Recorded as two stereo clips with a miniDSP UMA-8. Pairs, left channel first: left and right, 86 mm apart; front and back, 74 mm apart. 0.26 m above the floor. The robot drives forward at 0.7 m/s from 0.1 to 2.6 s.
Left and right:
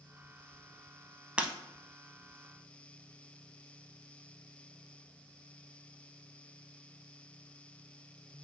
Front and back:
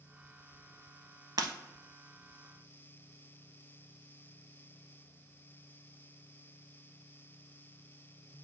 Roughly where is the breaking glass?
Behind.